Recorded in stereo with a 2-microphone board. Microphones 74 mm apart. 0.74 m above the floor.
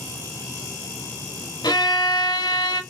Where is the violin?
75° left (ahead or behind), 0.8 m.